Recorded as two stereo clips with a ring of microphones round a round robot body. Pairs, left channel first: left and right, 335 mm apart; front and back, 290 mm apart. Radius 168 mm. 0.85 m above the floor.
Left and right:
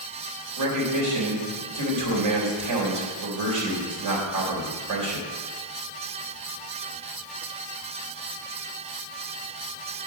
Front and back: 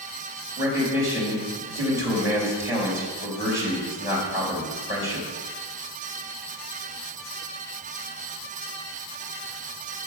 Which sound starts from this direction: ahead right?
A man speaking, at 0.6 s.